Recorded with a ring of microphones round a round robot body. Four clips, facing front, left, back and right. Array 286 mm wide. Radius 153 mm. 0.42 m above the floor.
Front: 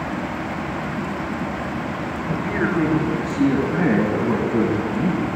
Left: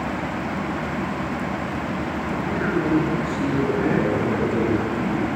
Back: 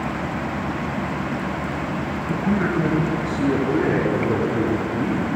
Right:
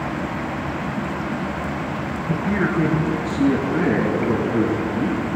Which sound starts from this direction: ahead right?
A man speaking, at 2.3 s.